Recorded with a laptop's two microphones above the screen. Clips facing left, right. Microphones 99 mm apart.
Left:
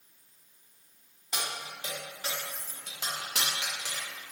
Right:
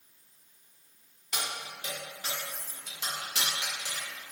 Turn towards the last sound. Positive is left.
turn(degrees=70)  # may be behind; listen again after turning